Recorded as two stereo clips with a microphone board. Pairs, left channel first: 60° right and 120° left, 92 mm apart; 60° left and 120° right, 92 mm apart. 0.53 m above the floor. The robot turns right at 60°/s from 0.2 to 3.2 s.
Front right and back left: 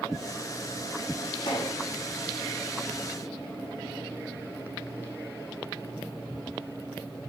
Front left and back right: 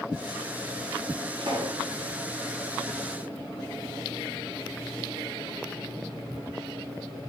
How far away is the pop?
About 3.5 m.